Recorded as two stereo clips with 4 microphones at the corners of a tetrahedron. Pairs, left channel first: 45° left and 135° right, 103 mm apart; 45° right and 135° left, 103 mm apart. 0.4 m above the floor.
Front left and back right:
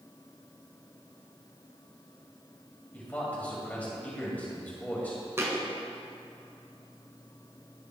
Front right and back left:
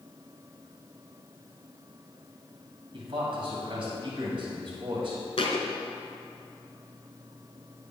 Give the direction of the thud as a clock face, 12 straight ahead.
2 o'clock.